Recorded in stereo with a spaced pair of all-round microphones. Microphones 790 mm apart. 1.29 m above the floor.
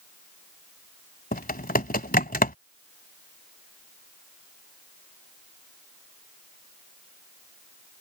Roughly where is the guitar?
No guitar in this recording.